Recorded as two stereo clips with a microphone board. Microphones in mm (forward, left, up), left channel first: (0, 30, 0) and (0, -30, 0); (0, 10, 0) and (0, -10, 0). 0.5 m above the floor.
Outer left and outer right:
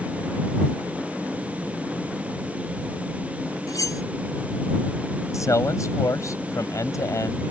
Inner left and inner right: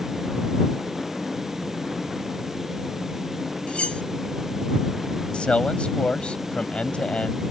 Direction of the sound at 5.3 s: 65° left (ahead or behind).